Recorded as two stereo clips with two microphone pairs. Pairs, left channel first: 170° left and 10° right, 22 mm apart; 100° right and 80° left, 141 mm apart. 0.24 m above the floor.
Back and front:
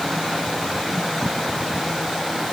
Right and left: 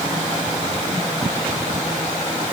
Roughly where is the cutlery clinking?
I don't hear cutlery clinking.